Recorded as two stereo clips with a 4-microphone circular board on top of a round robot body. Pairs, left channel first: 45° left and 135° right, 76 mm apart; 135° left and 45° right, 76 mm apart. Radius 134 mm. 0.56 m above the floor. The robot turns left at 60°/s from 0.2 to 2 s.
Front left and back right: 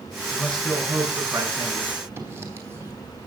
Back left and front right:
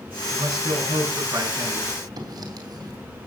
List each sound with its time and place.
0.3 s a man speaking: 25° right, 8 m; by 2.0 s 125° right, 8 m
2.2 s writing: 75° right, 3 m